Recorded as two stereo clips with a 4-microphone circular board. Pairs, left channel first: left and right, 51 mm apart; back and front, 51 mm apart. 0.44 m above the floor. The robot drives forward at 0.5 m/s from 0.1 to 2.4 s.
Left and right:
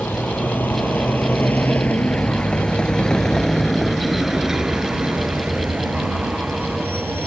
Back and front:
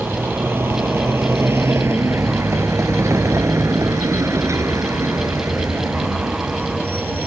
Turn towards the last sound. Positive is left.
turn(degrees=-50)